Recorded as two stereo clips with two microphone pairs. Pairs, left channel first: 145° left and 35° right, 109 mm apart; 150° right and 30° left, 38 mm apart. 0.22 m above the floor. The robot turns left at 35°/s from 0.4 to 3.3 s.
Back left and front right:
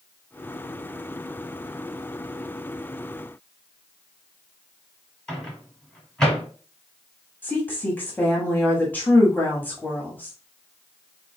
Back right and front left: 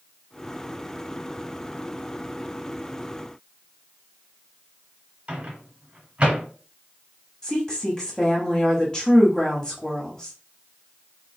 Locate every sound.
5.3 s a microwave: 65° left, 1.2 m
7.4 s a woman speaking: 175° right, 1.0 m